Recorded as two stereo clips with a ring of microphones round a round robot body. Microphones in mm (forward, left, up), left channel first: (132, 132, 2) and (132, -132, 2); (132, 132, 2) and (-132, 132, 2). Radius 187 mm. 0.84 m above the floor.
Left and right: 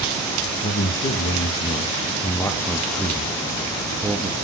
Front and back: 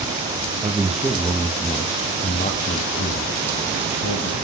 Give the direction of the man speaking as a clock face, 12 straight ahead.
9 o'clock.